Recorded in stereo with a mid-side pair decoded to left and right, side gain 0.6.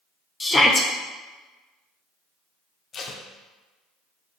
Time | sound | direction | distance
0.4 | a shout | 20° left | 1.0 m
2.9 | tape being pulled | 40° left | 1.2 m